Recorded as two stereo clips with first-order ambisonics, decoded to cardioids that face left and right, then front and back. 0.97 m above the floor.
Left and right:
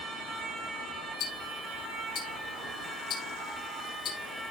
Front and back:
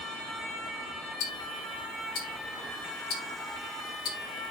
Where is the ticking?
35° left, 3 m.